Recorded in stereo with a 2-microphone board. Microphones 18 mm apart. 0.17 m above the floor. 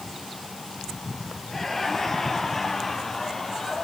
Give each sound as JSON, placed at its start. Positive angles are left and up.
{"t": 1.5, "sound": "laughter", "side_deg": 15, "distance_m": 4.0}